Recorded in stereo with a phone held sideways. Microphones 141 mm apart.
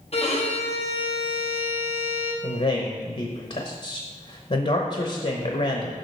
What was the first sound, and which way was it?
A violin, 45° left (ahead or behind).